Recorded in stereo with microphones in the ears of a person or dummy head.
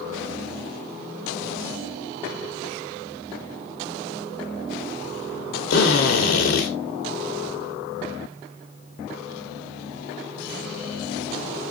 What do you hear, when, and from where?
5.7 s a drill: 55° left (ahead or behind), 2 m